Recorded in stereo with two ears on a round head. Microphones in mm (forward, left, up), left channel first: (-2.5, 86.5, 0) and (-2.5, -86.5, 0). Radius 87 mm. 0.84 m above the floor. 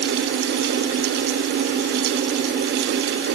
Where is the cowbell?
I don't hear a cowbell.